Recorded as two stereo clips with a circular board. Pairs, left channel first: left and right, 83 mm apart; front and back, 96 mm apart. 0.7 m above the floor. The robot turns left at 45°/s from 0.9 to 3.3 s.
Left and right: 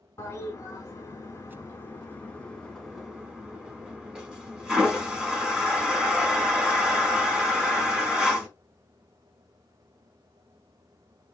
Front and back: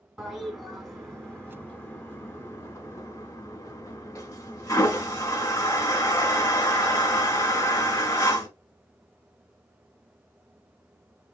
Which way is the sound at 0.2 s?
95° left.